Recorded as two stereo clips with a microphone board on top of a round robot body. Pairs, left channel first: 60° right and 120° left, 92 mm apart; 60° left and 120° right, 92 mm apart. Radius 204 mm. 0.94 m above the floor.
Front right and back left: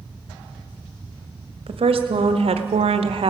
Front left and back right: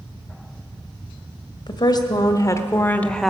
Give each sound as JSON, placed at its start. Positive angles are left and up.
{"t": 1.7, "sound": "a woman speaking", "azimuth_deg": 100, "distance_m": 1.2}